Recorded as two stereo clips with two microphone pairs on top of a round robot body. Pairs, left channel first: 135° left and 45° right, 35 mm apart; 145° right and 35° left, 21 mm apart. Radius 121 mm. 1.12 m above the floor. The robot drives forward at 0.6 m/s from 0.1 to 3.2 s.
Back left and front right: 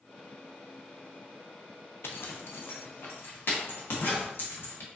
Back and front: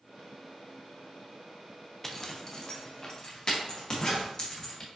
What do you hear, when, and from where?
2.0 s a zipper: 140° left, 0.6 m; by 4.9 s 160° left, 1.2 m